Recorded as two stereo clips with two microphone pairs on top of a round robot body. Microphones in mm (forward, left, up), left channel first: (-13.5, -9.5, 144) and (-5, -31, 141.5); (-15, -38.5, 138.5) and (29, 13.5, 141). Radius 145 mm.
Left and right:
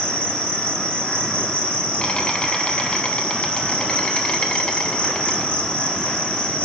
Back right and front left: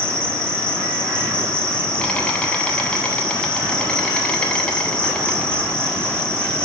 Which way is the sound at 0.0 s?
155° left.